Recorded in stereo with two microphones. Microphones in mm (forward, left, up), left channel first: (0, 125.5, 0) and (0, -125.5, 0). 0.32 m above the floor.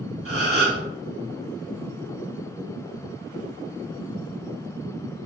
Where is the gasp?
60° right (ahead or behind), 1.0 m.